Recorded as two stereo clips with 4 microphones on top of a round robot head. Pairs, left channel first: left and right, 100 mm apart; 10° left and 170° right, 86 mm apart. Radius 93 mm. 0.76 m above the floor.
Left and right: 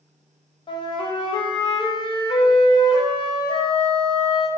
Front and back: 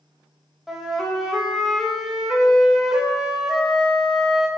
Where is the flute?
100° left, 0.5 m.